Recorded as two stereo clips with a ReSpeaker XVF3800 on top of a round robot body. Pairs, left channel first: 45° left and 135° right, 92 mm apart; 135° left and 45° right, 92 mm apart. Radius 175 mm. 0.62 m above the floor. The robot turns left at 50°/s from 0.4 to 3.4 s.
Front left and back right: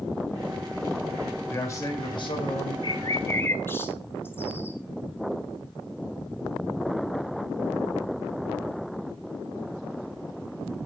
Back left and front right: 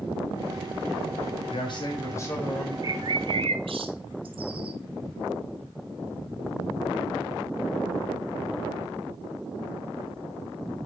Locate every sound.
1.5 s a man speaking: 115° left, 4 m; by 2.7 s 50° left, 4 m
2.8 s a bird: 5° left, 1.1 m; by 4.8 s 20° right, 1.1 m